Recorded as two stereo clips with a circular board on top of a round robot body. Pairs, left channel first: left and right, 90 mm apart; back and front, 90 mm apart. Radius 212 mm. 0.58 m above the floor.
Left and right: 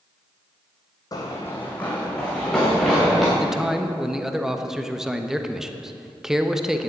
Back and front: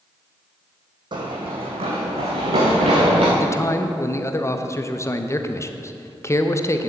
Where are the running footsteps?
40° left, 1.5 m; by 3.3 s 5° right, 4 m.